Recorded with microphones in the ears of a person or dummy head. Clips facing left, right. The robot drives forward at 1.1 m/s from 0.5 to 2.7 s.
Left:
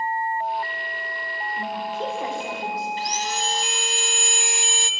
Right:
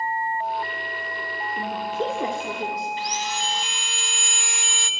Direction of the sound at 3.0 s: 35° left (ahead or behind).